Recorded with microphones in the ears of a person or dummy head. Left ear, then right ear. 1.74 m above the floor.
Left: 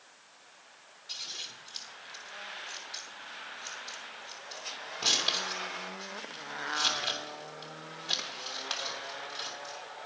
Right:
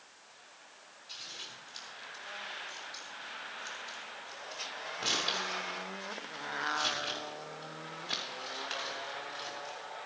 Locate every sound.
1.1 s scissors: 20° left (ahead or behind), 3 m